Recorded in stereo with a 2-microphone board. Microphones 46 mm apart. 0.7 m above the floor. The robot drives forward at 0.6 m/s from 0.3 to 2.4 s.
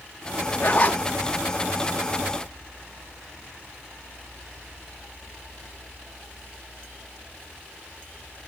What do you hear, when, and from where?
0.6 s a zipper: 55° left (ahead or behind), 0.6 m; by 1.0 s 40° left (ahead or behind), 0.8 m